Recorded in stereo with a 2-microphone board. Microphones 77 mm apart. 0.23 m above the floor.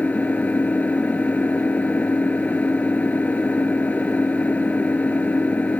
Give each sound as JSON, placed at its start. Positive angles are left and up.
{"t": 0.0, "sound": "an engine running", "side_deg": 20}